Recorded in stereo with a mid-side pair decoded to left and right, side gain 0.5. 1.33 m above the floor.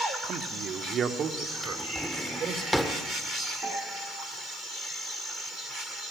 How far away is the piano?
About 5.5 m.